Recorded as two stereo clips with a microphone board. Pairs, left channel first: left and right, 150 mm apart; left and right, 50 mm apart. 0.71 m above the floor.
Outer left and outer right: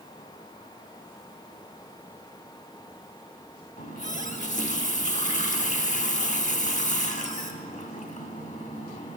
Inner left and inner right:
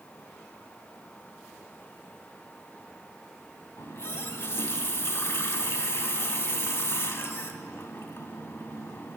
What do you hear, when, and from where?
3.8 s a running tap: 55° left (ahead or behind), 1.0 m